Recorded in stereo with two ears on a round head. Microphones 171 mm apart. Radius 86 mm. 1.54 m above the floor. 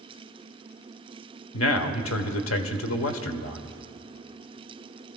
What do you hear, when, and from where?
1.5 s a man speaking: 85° left, 1.1 m